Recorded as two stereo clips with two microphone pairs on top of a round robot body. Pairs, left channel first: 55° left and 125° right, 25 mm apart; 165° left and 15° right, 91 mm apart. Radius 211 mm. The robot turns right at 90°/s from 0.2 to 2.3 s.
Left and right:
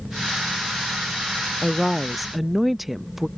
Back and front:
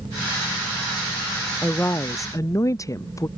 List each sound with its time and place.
1.6 s a woman speaking: 105° left; by 3.3 s 165° left